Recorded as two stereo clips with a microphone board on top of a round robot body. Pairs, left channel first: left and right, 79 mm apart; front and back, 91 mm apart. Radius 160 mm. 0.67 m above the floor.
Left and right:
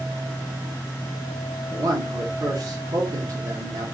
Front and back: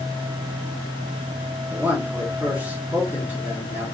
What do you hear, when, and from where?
1.7 s a man speaking: 115° right, 1.6 m